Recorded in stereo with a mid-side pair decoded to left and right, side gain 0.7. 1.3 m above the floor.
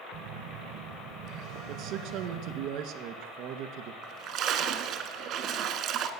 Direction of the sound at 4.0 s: 55° right.